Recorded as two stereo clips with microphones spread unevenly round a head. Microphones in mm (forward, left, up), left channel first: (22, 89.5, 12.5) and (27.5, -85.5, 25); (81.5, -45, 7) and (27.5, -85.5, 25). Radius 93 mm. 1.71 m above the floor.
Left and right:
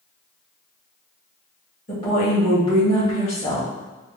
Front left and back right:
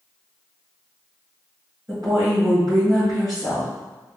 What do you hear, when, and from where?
1.9 s a woman speaking: 155° left, 1.6 m